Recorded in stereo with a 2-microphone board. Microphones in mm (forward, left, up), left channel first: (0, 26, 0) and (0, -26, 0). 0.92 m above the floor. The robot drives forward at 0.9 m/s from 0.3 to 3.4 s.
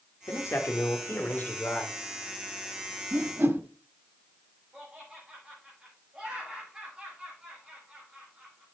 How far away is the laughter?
About 6.5 m.